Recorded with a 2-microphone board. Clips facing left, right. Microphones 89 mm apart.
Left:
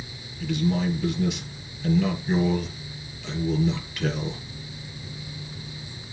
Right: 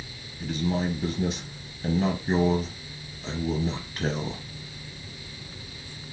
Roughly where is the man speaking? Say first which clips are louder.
Left 3 dB; right.